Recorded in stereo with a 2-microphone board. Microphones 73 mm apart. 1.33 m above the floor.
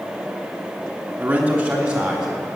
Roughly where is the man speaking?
Right.